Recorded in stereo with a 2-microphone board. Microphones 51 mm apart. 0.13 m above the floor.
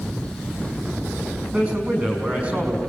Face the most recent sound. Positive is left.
turn(degrees=-35)  # may be behind; listen again after turning